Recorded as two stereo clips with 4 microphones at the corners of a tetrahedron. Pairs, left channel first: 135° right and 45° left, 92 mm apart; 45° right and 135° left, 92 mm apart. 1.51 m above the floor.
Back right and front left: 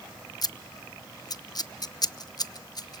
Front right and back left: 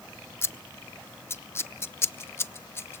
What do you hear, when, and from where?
0.4 s scissors: 105° right, 0.6 m